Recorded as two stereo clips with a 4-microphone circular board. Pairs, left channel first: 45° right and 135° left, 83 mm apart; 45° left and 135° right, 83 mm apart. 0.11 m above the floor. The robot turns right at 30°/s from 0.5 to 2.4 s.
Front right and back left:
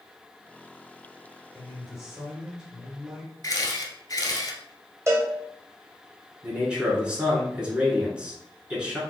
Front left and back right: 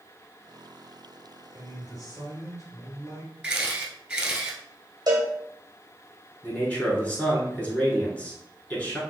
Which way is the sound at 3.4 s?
60° right.